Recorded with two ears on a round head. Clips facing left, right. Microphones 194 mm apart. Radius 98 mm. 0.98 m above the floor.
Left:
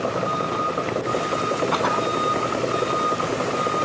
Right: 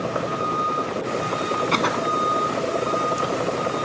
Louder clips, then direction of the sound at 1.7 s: Even; 30° right (ahead or behind).